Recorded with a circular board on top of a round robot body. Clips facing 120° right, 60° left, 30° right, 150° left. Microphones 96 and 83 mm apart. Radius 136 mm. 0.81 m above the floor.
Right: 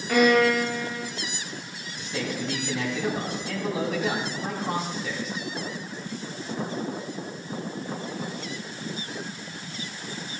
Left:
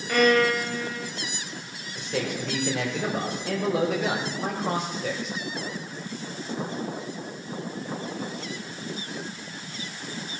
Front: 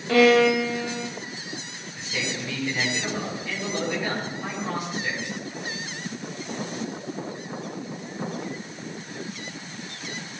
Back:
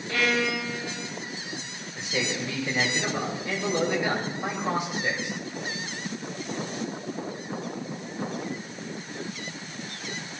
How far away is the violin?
About 1.5 m.